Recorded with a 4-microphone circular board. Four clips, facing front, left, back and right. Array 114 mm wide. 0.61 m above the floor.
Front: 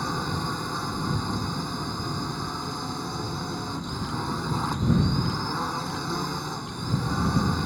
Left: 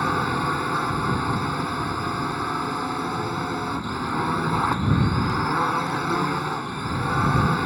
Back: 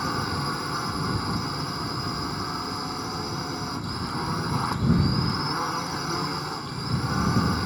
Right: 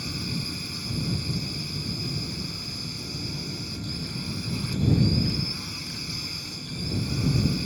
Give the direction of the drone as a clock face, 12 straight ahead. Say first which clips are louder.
Left 12 dB, back 1 dB; 9 o'clock.